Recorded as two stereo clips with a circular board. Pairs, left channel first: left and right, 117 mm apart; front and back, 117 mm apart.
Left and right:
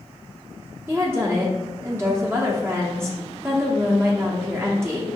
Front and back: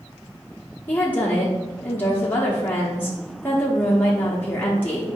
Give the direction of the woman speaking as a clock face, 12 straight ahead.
2 o'clock.